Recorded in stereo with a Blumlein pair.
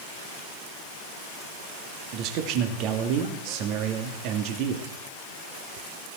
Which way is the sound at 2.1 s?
40° right.